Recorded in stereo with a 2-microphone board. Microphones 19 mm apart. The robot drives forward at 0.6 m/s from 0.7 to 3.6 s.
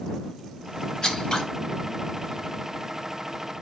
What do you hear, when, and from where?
1.0 s scissors: 30° left (ahead or behind), 3 m